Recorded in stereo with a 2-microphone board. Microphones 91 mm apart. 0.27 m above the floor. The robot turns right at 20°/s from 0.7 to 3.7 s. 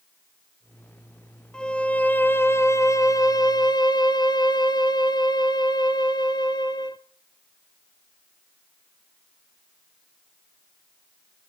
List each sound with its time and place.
1.5 s a violin: 10° left, 0.9 m; by 7.0 s 50° left, 0.9 m